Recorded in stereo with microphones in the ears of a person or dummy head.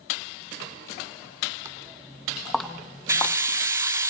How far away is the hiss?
About 0.6 m.